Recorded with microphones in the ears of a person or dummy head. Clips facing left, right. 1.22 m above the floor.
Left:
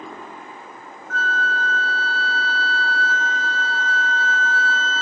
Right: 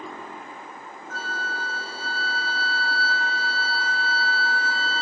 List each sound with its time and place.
1.1 s a flute: 10° right (ahead or behind), 0.6 m